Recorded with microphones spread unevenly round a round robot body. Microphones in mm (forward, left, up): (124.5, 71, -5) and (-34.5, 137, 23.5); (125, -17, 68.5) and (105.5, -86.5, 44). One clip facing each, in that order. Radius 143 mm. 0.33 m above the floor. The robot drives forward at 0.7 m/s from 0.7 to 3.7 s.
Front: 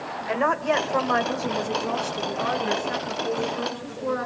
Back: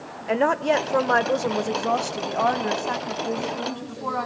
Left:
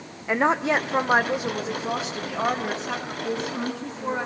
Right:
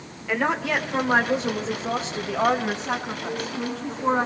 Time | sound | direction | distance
0.3 | a woman speaking | 145° left | 0.9 m
3.2 | a woman speaking | 80° left | 5.5 m